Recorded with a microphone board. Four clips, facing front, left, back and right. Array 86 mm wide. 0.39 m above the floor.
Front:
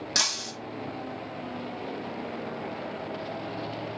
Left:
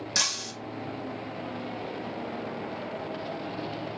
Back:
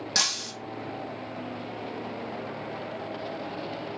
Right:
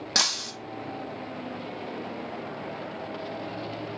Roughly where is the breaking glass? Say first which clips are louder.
Right 7 dB, even; right.